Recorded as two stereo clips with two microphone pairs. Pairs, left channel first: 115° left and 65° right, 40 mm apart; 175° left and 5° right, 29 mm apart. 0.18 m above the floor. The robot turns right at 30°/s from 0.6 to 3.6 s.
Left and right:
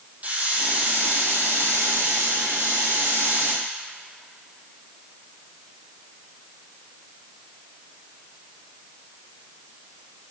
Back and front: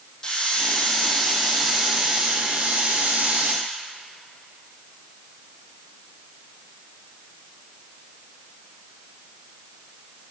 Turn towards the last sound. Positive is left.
turn(degrees=-30)